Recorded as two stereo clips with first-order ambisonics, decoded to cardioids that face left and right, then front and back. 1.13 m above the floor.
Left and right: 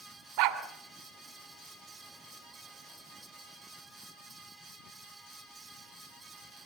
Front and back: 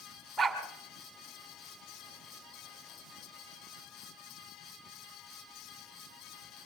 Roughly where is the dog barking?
Right.